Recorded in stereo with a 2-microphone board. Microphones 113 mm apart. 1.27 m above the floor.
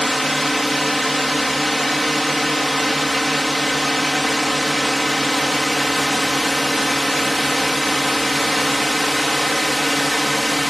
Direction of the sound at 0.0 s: Centre (ahead or behind).